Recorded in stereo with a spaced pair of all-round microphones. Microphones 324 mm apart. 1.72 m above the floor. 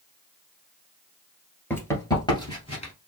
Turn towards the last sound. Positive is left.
turn(degrees=20)  # may be behind; listen again after turning